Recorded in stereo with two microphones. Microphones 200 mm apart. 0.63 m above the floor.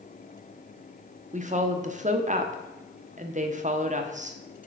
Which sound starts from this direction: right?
A woman speaking, at 1.3 s.